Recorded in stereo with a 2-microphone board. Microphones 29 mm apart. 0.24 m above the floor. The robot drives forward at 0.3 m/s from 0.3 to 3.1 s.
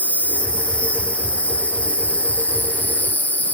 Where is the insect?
50° left (ahead or behind), 2 m; by 3.6 s 70° left (ahead or behind), 1.8 m.